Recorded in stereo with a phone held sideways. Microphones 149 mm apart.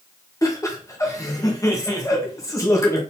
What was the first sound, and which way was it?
Laughter, 20° left (ahead or behind).